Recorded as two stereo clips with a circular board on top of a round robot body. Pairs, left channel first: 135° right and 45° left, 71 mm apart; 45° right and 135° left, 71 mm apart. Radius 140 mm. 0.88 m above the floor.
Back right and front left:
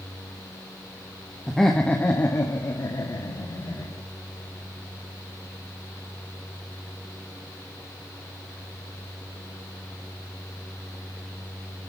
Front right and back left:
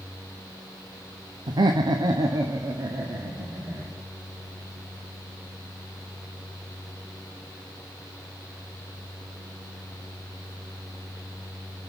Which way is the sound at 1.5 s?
135° left.